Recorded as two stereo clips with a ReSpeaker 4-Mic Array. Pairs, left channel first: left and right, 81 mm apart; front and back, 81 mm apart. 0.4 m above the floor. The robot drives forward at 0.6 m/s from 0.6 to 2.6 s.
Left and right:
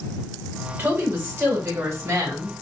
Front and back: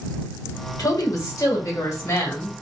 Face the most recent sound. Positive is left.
turn(degrees=-55)